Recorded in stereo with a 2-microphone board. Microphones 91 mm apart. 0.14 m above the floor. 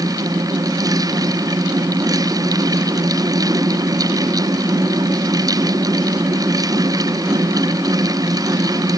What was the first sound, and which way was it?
Only background noise.